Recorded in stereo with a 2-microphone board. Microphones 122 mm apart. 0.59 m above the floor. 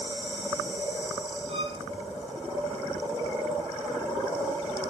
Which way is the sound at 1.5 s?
60° right (ahead or behind).